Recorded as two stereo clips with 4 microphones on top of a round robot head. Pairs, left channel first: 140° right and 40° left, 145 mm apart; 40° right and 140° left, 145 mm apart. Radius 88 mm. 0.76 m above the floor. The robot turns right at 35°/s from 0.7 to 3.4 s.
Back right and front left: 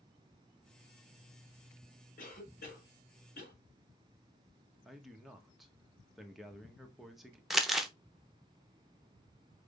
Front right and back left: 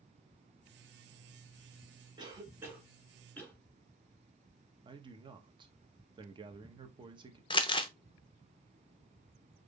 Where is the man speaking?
130° left, 1.1 m.